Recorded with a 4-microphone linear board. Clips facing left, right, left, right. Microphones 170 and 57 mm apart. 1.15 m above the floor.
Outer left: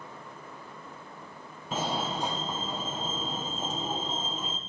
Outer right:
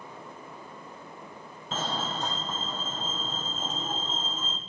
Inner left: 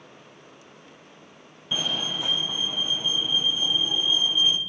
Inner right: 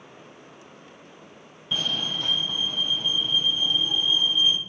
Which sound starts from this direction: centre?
A fire alarm, at 1.7 s.